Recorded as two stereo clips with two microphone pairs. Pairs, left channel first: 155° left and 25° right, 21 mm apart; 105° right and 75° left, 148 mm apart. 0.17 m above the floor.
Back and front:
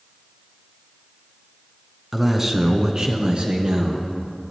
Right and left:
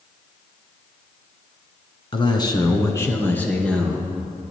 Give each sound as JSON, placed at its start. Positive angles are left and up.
{"t": 2.1, "sound": "a man speaking", "azimuth_deg": -95, "distance_m": 1.3}